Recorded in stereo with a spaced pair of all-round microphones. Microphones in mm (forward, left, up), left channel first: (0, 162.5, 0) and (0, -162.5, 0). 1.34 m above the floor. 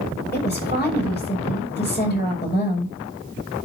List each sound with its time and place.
0.3 s a woman speaking: 30° left (ahead or behind), 6.5 m